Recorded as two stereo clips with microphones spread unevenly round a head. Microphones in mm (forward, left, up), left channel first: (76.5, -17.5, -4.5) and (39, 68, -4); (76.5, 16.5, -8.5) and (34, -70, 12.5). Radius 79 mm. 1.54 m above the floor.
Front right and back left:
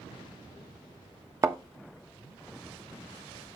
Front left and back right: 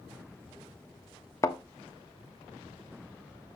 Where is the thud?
125° left, 1.1 m.